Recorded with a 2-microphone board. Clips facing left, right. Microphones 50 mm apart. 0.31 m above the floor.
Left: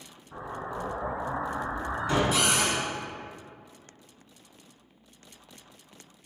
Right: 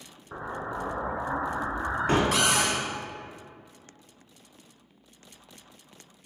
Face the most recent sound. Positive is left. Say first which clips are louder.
# right 1 dB
turn(degrees=-70)  # may be behind; listen again after turning